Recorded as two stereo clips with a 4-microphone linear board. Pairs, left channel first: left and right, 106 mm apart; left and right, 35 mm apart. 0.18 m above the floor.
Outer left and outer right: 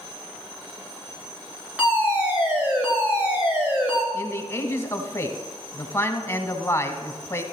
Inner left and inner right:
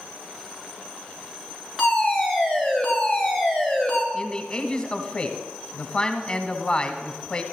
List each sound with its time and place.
1.8 s a fire alarm: 10° right (ahead or behind), 3.5 m
4.1 s a man speaking: 25° left (ahead or behind), 1.0 m